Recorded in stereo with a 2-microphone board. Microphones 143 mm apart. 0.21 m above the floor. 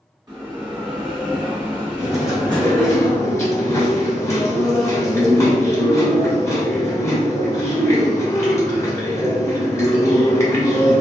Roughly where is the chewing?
Left.